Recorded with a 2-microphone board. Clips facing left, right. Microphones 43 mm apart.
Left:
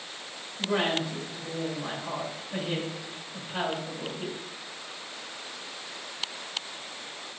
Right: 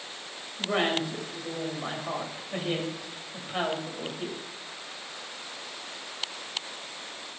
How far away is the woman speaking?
About 2 m.